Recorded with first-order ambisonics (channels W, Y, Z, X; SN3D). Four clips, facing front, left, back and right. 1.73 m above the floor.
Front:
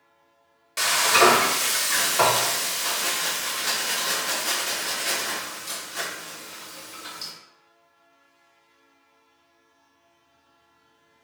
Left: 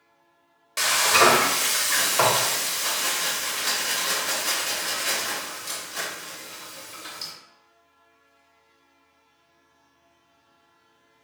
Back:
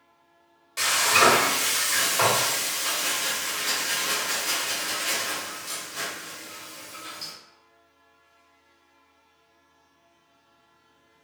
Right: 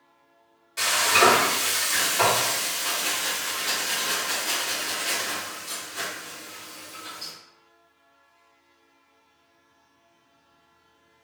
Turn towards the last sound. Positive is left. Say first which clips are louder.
# left 1 dB, front 1 dB
turn(degrees=65)